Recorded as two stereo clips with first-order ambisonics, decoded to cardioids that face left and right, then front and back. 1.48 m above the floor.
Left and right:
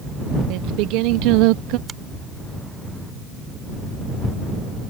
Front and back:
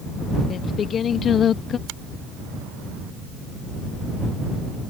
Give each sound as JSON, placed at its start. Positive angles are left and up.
{"t": 0.5, "sound": "singing", "azimuth_deg": -65}
{"t": 1.9, "sound": "a finger snap", "azimuth_deg": -160}